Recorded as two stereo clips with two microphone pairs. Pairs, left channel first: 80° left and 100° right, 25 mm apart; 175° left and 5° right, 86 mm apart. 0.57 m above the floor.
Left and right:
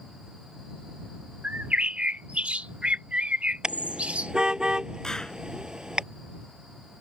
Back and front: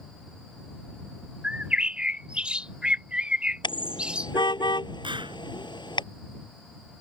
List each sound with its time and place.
1.4 s a bird: 85° right
3.6 s a car horn: 160° right
5.0 s a clap: 15° left